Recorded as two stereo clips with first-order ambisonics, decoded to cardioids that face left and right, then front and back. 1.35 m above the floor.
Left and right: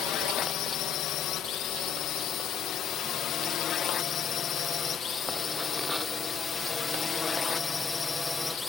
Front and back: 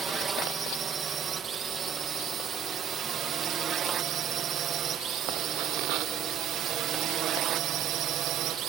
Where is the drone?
115° left; by 8.7 s 165° left.